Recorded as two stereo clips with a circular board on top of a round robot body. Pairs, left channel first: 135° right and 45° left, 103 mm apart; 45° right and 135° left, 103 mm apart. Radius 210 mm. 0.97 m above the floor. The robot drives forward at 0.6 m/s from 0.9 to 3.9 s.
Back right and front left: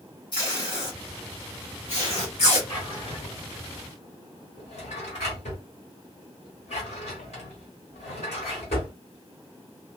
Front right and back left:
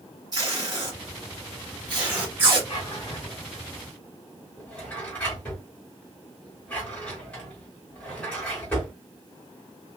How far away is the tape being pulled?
About 0.9 m.